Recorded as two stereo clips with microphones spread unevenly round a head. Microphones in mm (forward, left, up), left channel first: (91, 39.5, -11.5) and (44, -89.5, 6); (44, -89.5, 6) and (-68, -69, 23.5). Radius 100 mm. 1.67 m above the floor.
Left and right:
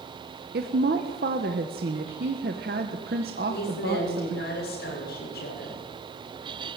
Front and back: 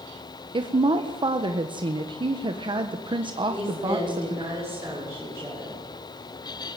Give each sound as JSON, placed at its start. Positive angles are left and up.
{"t": 0.5, "sound": "a woman speaking", "azimuth_deg": -145, "distance_m": 1.5}
{"t": 3.5, "sound": "a woman speaking", "azimuth_deg": 90, "distance_m": 7.0}